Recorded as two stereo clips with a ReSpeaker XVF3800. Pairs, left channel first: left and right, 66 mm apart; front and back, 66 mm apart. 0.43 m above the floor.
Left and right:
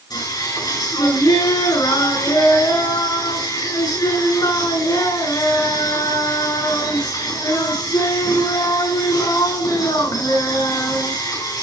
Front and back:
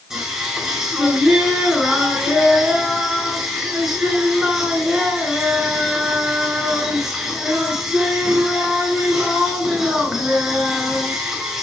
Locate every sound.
0.1 s singing: 95° left, 6.5 m